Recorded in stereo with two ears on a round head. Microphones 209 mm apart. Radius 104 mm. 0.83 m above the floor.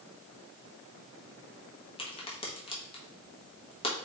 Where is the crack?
25° left (ahead or behind), 1.2 m.